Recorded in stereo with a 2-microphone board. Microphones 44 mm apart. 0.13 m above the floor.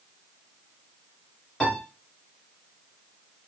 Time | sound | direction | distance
1.6 | a piano | 10° left (ahead or behind) | 1.5 m